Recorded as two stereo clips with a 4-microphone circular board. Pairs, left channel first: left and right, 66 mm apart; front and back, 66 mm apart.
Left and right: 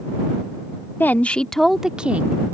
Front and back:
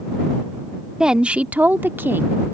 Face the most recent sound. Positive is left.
turn(degrees=-140)